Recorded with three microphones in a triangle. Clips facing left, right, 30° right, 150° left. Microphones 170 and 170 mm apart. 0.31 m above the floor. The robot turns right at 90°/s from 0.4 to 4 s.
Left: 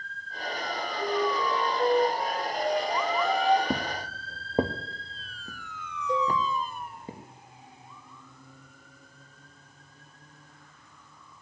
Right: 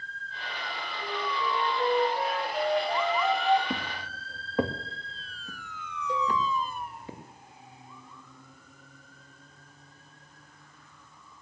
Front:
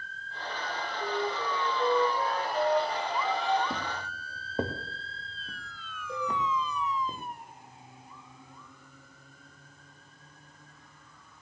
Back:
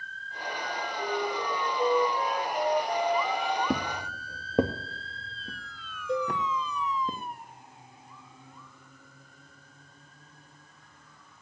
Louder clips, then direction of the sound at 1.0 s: Left 6 dB, back 1 dB; 150° left.